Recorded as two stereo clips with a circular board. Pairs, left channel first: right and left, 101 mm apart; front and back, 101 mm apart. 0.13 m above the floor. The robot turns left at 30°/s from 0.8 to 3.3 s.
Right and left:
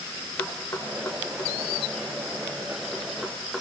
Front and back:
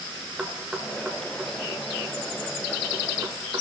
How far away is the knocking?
About 1.6 m.